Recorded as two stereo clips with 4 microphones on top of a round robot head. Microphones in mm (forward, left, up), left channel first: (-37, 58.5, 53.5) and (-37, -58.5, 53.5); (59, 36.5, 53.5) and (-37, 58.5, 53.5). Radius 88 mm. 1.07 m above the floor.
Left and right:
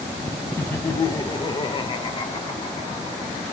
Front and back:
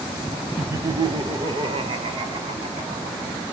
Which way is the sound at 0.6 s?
140° left.